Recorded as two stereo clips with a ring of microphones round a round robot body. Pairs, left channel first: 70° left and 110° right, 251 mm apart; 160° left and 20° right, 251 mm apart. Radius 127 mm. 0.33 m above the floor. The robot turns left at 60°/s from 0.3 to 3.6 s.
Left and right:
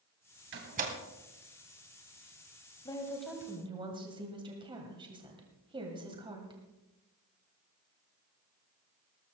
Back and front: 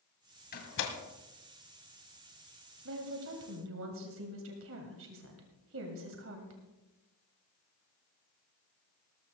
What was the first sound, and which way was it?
A door slam, 150° right.